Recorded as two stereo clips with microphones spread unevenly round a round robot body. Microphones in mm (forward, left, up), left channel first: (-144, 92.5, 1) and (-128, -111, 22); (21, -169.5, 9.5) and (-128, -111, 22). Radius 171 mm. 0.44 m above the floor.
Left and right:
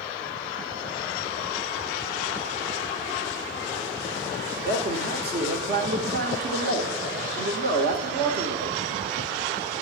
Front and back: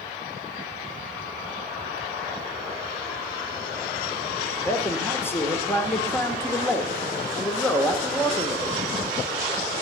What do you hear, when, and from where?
4.6 s a man speaking: 85° right, 1.5 m